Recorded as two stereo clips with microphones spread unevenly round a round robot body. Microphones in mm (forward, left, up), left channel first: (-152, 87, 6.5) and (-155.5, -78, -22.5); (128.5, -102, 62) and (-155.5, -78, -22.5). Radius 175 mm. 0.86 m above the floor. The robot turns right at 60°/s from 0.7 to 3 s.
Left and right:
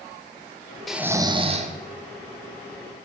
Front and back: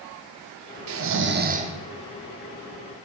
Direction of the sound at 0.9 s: 175° right.